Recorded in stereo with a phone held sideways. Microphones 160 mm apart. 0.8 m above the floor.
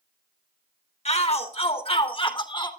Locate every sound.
1.1 s a shout: 45° left (ahead or behind), 3 m; by 2.7 s 30° left (ahead or behind), 2.5 m